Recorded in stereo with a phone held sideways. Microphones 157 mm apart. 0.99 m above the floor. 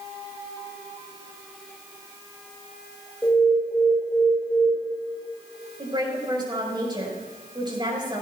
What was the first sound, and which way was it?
An alarm, 10° left (ahead or behind).